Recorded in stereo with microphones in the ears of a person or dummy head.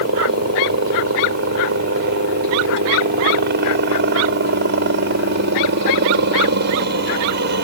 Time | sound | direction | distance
0.0 | a helicopter | 60° right (ahead or behind) | ?